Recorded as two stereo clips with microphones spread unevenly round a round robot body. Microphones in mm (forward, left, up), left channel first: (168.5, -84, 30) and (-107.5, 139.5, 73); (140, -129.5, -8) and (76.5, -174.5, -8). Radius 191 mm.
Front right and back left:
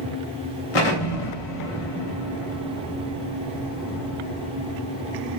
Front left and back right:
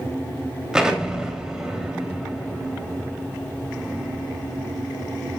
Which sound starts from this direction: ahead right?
An explosion, at 0.7 s.